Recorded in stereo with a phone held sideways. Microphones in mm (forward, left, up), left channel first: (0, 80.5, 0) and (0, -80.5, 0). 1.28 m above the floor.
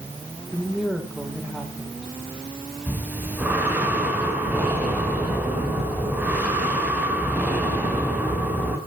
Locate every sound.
0.5 s a woman speaking: centre (ahead or behind), 4 m
2.9 s breathing: 10° right (ahead or behind), 4 m